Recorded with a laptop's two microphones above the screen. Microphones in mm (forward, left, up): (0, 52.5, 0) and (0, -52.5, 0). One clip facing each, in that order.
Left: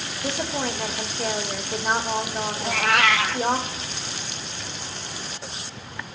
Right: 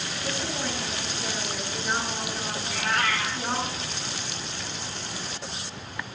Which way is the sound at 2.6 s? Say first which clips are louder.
Left 6 dB; 75° left (ahead or behind).